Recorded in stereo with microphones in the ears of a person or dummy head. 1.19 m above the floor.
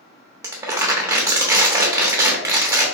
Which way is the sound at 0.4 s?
10° right (ahead or behind).